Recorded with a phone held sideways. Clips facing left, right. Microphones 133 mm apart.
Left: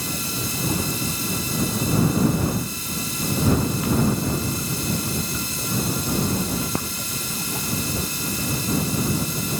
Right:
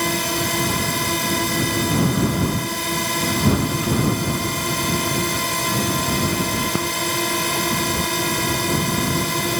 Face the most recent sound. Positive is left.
turn(degrees=-70)  # may be behind; listen again after turning